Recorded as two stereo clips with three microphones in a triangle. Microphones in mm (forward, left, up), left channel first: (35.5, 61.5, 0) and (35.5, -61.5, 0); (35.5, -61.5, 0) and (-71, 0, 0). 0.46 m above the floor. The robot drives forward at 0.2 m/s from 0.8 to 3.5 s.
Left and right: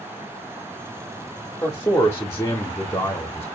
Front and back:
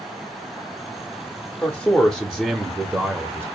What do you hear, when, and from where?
1.6 s a man speaking: 45° left, 0.7 m; by 3.5 s 115° left, 0.7 m